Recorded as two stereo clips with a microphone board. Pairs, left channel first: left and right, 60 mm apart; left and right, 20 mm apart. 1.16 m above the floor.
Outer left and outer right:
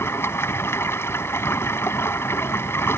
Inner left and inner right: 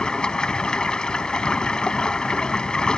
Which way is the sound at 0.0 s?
40° left (ahead or behind).